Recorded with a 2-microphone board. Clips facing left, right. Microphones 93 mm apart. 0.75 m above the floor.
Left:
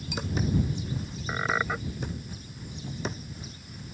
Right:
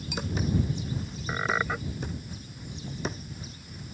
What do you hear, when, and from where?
1.3 s a squeak: 5° left (ahead or behind)